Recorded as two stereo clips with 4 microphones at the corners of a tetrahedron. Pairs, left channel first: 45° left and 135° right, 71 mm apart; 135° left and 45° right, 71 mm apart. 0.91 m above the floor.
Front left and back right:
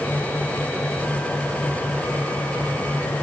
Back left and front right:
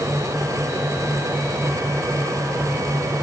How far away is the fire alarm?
No fire alarm in this recording.